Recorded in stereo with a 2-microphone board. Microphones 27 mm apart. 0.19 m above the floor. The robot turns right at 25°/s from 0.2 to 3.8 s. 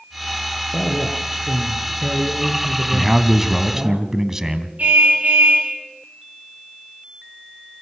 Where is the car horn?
60° right (ahead or behind), 9.5 m.